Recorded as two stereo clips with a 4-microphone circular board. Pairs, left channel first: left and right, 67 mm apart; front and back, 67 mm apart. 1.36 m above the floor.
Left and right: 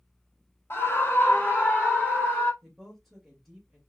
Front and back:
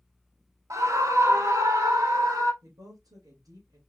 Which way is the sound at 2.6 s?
175° left.